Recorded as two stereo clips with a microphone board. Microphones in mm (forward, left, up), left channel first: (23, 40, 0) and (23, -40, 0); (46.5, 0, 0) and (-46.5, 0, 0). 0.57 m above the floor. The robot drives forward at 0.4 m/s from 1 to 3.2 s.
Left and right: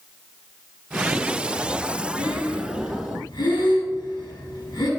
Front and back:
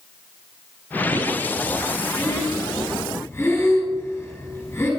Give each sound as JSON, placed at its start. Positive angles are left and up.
{"t": 2.2, "sound": "breathing", "azimuth_deg": 60, "distance_m": 5.5}